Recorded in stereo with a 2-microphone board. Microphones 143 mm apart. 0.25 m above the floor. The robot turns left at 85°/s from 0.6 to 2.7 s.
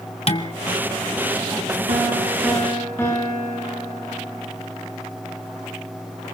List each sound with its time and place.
0.3 s dishes clattering: 45° left (ahead or behind), 1.0 m
1.9 s a piano: 125° right, 8.5 m; by 4.5 s 165° left, 8.5 m